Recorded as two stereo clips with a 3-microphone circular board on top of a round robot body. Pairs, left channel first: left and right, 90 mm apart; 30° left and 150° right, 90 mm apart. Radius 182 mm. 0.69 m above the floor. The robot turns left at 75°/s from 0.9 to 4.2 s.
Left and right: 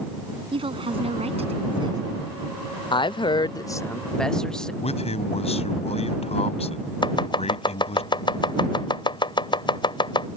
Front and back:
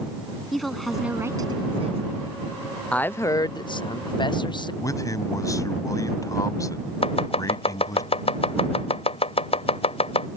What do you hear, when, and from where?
0.5 s a woman speaking: 60° right; by 2.0 s 140° right
2.9 s a woman speaking: 105° left; by 4.7 s 10° left
4.8 s a man speaking: 90° left
7.0 s chopping: 50° left